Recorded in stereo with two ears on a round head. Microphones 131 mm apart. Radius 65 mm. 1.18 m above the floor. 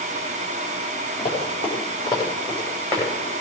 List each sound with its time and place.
1.2 s running footsteps: 45° left (ahead or behind), 7.5 m; by 3.1 s 30° left (ahead or behind), 7 m